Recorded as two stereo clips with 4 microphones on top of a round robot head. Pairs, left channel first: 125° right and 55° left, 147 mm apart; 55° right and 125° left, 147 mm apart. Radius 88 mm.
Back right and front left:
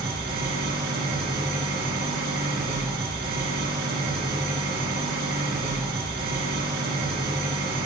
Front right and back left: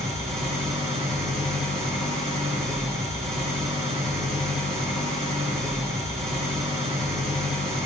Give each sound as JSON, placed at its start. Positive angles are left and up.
{"t": 0.0, "sound": "an engine running", "azimuth_deg": 75, "distance_m": 3.0}